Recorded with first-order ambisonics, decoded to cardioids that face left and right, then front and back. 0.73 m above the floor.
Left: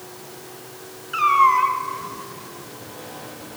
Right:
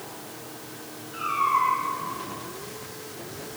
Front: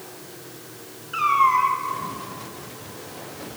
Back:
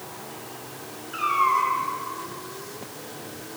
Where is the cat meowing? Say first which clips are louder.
Left 8 dB, front 4 dB; 70° left, 0.8 m.